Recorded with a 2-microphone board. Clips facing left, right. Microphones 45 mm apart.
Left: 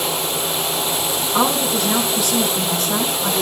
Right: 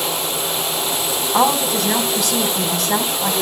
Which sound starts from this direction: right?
A woman speaking, at 1.3 s.